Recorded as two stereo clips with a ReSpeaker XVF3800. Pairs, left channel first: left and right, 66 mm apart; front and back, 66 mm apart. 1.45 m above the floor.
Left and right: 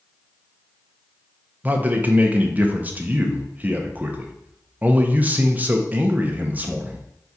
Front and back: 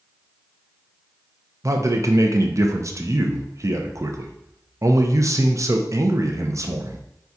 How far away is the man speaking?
About 0.6 m.